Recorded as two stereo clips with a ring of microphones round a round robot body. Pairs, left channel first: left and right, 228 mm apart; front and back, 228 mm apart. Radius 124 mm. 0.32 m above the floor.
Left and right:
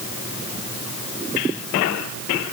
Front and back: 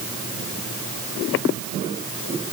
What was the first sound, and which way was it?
Only background noise.